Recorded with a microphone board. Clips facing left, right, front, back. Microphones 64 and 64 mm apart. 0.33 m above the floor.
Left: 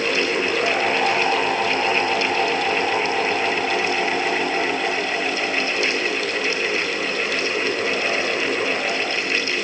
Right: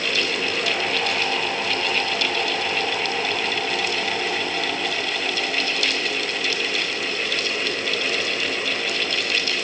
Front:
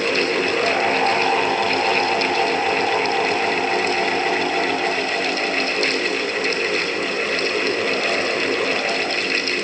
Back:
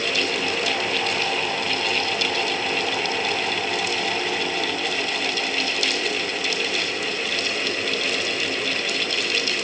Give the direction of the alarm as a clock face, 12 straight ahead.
I don't hear an alarm.